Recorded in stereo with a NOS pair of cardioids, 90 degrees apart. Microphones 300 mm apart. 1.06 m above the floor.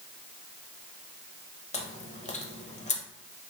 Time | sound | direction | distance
1.7 | chewing | 25° left | 0.6 m